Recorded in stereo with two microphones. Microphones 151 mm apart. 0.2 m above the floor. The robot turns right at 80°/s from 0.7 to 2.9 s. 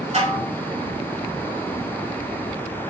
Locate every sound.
0.1 s dishes clattering: 50° right (ahead or behind), 1.6 m